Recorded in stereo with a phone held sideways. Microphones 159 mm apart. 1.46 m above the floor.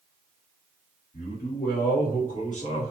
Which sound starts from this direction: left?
A man speaking, at 1.1 s.